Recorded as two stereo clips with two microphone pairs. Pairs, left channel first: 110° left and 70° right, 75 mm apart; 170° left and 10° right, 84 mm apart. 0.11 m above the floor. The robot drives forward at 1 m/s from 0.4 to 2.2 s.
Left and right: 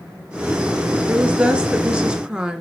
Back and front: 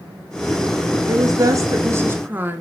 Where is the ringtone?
No ringtone in this recording.